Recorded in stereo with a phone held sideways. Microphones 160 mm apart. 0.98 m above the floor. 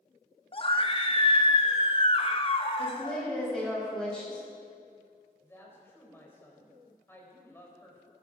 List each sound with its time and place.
0.5 s a scream: 35° left (ahead or behind), 1.2 m
2.8 s a woman speaking: 5° left (ahead or behind), 5.5 m
5.4 s a woman speaking: 15° left (ahead or behind), 4 m